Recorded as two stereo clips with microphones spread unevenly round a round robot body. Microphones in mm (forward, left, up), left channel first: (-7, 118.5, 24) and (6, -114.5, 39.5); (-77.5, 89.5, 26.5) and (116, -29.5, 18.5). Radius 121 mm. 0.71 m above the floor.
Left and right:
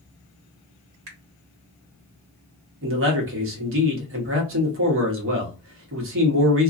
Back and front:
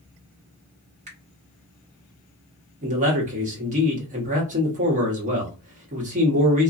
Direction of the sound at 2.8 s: 80° right.